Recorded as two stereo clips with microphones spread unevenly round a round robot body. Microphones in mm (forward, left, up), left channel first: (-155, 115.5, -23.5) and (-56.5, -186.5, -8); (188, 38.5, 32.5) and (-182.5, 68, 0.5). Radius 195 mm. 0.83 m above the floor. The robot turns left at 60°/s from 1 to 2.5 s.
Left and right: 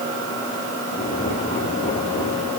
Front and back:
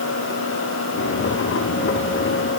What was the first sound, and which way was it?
Only background noise.